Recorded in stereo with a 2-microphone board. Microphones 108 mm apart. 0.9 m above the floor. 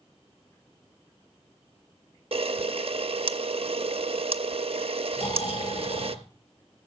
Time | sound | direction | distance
2.3 | a camera shutter | 60° right (ahead or behind) | 0.6 m
5.2 | snoring | 65° left (ahead or behind) | 4 m